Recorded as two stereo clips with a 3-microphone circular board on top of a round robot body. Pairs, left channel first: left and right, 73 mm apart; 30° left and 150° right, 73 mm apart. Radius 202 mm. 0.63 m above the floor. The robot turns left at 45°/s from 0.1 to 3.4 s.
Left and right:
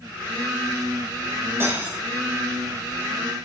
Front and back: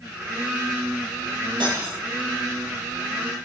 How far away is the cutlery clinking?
About 3 m.